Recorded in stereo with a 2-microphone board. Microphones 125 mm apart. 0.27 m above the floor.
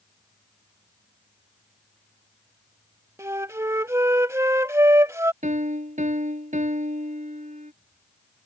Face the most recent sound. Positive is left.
turn(degrees=-75)  # may be behind; listen again after turning